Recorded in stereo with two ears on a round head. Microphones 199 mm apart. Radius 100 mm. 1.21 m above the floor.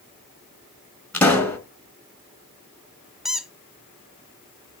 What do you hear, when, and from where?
1.1 s a pop: 5° left (ahead or behind), 3 m
3.2 s a squeak: centre (ahead or behind), 0.8 m